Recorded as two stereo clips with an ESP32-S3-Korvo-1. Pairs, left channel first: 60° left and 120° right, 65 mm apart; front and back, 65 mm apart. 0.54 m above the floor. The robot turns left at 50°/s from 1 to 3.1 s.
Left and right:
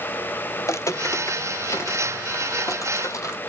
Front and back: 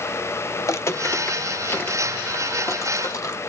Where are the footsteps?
25° left, 0.9 m; by 3.4 s 35° left, 1.3 m.